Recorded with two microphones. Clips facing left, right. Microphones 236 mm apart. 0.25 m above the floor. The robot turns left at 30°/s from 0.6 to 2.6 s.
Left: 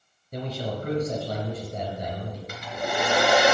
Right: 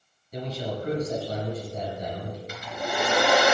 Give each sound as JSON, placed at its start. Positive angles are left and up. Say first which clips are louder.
{"t": 0.3, "sound": "a man speaking", "louder": "even", "azimuth_deg": 120, "distance_m": 5.0}
{"t": 2.5, "sound": "a hair dryer", "louder": "left 3 dB", "side_deg": 60, "distance_m": 4.0}